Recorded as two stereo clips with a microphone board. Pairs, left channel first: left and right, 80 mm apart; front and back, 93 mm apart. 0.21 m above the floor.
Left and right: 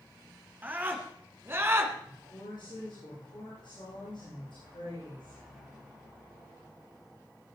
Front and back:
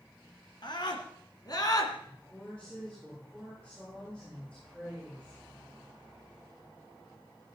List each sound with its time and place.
0.6 s a scream: 25° right, 2.5 m; by 1.9 s 40° right, 2 m
2.0 s a woman speaking: 80° left, 9.5 m